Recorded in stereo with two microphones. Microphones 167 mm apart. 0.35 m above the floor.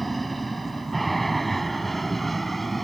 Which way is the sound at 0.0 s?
Centre (ahead or behind).